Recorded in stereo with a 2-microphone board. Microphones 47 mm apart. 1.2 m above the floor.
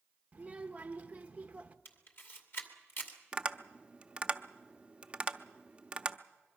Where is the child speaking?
30° right (ahead or behind), 1.2 m.